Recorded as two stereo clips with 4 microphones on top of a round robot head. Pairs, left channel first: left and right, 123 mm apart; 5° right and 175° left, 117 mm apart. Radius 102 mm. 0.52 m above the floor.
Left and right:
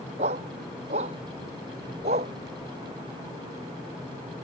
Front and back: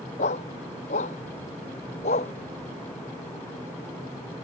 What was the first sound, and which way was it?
A dog barking, 45° right.